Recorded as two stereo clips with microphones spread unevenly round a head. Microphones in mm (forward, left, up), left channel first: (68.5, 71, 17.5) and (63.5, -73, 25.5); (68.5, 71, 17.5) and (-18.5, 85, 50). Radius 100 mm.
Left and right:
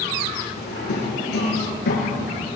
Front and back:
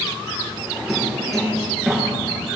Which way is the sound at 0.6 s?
80° left.